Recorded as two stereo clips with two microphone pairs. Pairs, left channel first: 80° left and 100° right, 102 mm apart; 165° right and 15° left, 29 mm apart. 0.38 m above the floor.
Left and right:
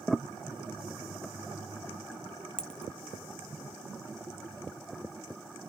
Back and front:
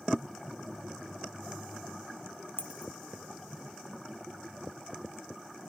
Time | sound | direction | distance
2.6 | a dropped coin | 165° left | ?